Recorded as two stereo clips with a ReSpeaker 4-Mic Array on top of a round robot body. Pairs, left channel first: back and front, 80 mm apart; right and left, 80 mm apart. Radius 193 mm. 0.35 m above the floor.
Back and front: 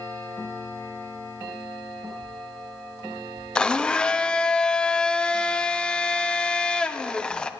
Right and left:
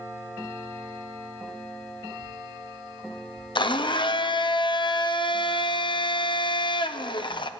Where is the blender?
100° right, 0.7 m.